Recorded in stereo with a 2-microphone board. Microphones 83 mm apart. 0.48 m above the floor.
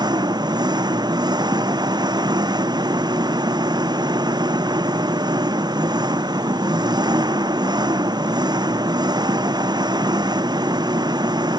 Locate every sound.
0.0 s an engine running: 55° right (ahead or behind)